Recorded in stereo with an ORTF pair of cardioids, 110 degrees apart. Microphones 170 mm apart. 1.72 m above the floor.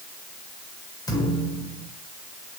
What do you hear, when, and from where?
1.1 s a thud: 20° left, 4 m